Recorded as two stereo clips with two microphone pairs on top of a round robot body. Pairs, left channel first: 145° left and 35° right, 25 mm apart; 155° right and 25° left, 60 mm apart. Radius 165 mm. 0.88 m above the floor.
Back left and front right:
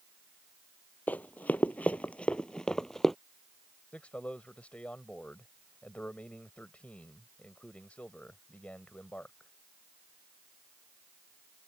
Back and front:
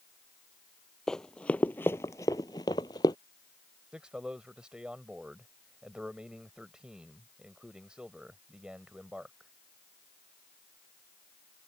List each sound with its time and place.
1.1 s running footsteps: 135° left; by 3.1 s 145° right
3.9 s a man speaking: 105° left